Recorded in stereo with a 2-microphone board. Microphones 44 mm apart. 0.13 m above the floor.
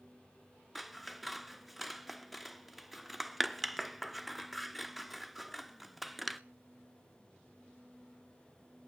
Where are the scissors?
5° right (ahead or behind), 0.6 m.